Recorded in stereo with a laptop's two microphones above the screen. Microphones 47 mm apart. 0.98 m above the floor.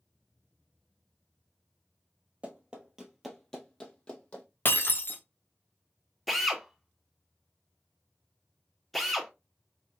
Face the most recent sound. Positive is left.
turn(degrees=0)  # may be behind; listen again after turning